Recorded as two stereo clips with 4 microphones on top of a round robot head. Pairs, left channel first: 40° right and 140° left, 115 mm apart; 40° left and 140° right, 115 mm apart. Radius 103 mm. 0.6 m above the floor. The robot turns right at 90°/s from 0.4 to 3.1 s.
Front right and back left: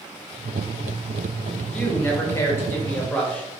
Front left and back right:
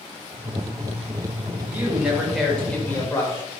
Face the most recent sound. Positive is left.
turn(degrees=20)